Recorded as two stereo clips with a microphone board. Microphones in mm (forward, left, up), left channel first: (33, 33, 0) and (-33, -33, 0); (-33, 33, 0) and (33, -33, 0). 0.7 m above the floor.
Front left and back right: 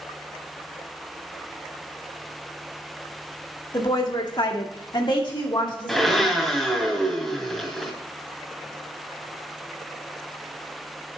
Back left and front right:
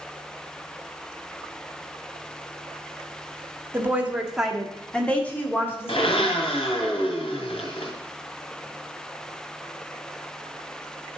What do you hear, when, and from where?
3.7 s a woman speaking: 15° left, 1.5 m; by 6.9 s 85° left, 3 m
5.9 s a blender: 135° left, 2.0 m